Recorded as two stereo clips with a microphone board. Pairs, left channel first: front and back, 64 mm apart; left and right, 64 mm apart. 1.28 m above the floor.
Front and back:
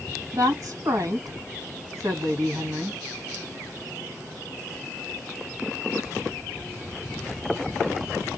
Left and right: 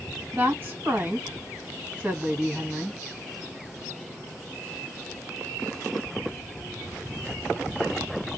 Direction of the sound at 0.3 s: 150° right.